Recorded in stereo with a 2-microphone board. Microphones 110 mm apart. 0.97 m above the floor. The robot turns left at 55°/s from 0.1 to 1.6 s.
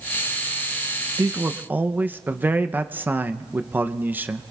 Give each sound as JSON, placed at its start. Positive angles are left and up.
{"t": 1.2, "sound": "a man speaking", "side_deg": -30, "distance_m": 0.6}